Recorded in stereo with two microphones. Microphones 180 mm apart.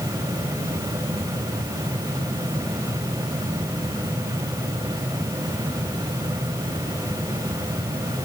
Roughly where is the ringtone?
I don't hear a ringtone.